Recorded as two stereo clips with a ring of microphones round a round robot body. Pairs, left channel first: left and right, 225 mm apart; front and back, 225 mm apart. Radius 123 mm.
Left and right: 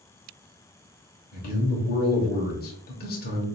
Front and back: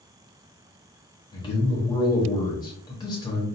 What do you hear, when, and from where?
1.3 s a man speaking: 65° left, 1.3 m